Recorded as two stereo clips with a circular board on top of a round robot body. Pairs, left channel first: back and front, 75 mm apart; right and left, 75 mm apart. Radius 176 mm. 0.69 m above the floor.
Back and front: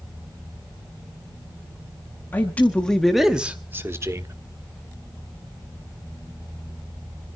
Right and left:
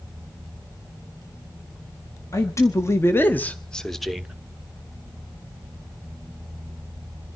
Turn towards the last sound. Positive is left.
turn(degrees=5)